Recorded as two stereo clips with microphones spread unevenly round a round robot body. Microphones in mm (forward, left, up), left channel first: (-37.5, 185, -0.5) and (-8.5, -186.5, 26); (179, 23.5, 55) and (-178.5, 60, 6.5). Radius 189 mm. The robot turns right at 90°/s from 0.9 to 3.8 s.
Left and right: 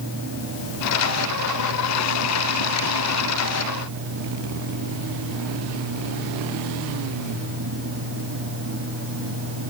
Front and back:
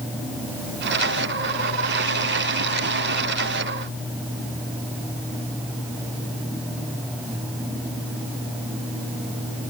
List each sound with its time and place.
Only background noise.